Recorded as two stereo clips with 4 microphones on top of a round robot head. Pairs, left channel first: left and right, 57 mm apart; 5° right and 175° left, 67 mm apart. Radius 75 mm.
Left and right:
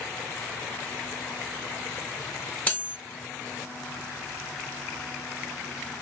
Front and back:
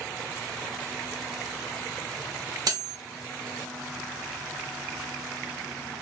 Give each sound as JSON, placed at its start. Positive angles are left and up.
{"t": 2.7, "sound": "cutlery clinking", "azimuth_deg": 150, "distance_m": 2.0}